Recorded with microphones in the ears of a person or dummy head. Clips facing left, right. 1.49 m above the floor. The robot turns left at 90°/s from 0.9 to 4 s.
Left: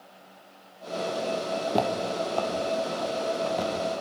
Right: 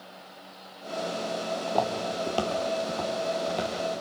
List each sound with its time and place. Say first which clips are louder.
1.7 s footsteps: left 1 dB; 35° left (ahead or behind), 2.5 m; by 3.7 s 10° left (ahead or behind), 3 m